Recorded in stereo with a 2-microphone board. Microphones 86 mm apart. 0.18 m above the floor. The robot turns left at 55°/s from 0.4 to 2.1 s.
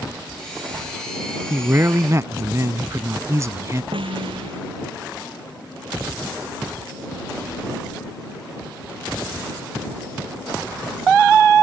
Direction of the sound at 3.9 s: 85° right.